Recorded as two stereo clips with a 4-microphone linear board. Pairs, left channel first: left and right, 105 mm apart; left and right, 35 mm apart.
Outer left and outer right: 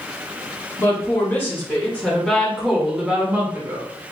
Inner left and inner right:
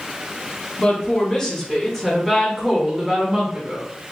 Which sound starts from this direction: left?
A woman speaking, at 0.8 s.